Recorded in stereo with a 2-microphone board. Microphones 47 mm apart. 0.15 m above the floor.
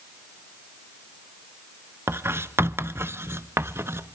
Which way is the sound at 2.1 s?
60° right (ahead or behind).